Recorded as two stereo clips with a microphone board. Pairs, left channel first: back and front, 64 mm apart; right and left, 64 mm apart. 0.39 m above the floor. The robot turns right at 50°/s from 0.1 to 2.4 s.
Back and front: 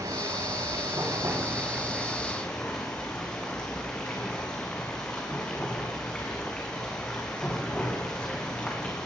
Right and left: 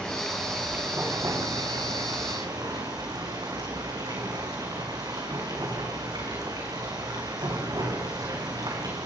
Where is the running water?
10° right, 6 m; by 9.1 s 105° left, 6 m.